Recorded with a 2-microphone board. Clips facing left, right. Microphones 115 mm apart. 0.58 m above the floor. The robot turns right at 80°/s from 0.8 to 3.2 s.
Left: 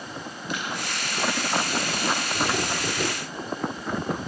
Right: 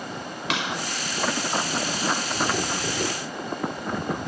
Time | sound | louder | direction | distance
0.5 | a clap | right 3 dB | 80° right | 5 m